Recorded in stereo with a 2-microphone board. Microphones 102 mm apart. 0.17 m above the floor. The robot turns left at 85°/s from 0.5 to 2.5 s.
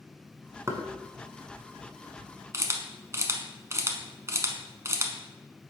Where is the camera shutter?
30° right (ahead or behind), 0.8 m.